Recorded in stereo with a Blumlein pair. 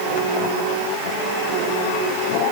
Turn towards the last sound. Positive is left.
No sound to turn to.